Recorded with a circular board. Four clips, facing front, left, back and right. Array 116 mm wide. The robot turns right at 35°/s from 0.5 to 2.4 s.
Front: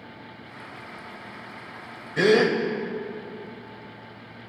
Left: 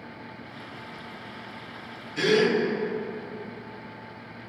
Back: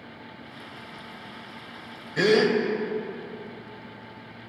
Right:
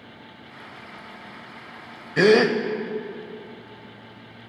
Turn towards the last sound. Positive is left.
turn(degrees=-75)